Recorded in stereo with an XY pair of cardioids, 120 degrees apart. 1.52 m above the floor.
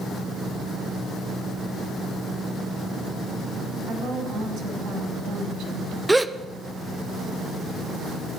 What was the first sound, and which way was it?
A woman speaking, 70° right.